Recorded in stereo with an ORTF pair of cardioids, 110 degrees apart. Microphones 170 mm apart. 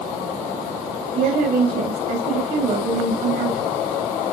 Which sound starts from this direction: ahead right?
A woman speaking, at 1.1 s.